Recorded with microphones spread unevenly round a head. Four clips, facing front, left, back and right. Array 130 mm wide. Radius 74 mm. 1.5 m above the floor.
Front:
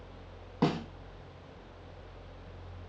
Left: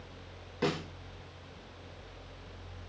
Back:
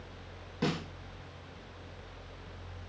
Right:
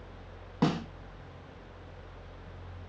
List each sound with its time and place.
0.6 s a snare drum: 40° right, 1.0 m